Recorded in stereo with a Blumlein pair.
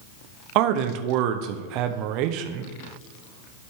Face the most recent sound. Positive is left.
turn(degrees=-40)